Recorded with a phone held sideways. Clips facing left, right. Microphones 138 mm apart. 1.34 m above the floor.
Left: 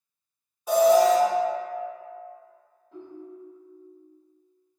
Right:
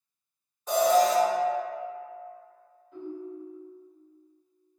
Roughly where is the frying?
I don't hear frying.